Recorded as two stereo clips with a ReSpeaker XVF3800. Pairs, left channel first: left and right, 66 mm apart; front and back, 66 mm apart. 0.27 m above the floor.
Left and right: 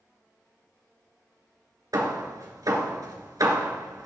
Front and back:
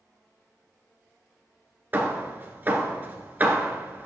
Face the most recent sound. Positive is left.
turn(degrees=-120)